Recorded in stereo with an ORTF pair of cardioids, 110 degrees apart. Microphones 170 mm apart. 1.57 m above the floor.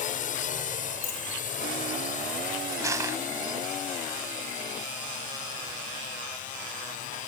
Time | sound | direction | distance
0.0 | a drone | 50° left | ?
1.0 | a dropped coin | 65° left | ?
2.8 | crushing | 20° right | ?